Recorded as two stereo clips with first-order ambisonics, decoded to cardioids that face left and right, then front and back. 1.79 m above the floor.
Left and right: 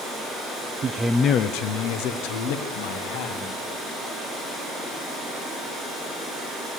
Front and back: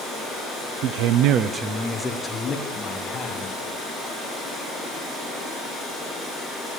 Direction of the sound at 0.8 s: 160° right.